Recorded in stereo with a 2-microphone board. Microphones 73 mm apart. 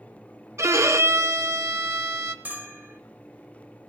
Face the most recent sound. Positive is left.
turn(degrees=-25)  # may be behind; listen again after turning